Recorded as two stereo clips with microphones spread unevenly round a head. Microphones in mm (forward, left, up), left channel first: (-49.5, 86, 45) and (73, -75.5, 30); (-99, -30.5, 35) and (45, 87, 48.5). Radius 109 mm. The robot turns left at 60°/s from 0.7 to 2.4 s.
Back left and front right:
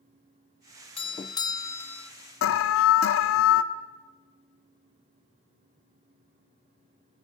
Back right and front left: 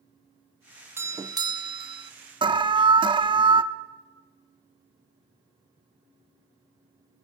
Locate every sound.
1.0 s a doorbell: 105° left, 0.6 m; by 2.1 s 35° left, 0.6 m
2.4 s an alarm: 105° left, 1.0 m